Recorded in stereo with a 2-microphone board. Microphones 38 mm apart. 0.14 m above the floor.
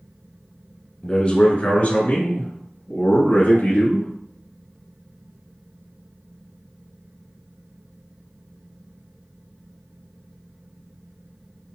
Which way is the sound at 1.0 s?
25° left (ahead or behind).